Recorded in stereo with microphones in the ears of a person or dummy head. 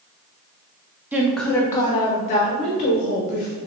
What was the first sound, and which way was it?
A woman speaking, 10° right (ahead or behind).